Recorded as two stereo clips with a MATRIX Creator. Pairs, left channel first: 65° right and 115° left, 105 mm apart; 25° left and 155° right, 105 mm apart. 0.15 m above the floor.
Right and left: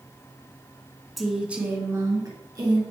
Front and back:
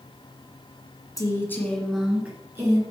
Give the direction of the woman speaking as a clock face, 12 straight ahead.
11 o'clock.